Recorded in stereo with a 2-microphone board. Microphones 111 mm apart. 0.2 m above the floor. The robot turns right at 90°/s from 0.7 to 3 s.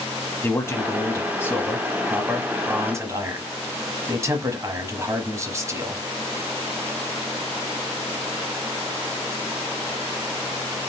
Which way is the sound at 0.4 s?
25° left (ahead or behind).